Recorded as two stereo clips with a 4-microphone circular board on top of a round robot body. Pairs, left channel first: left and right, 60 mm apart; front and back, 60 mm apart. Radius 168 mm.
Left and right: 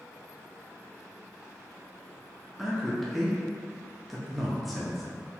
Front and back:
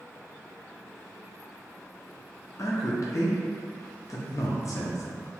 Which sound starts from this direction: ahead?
A man speaking, at 2.6 s.